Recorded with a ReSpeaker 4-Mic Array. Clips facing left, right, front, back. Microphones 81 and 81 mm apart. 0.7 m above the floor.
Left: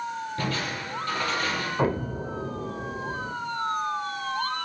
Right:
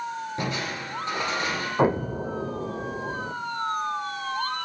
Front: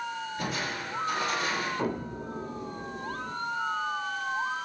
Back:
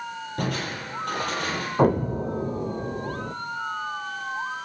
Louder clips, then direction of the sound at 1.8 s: Right 5 dB, back 11 dB; 160° right.